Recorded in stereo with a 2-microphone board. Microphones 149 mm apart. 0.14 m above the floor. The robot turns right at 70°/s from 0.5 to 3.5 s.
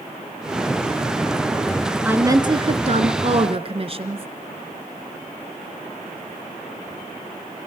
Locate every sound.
2.0 s a woman speaking: 165° right, 1.4 m; by 4.3 s 65° right, 1.4 m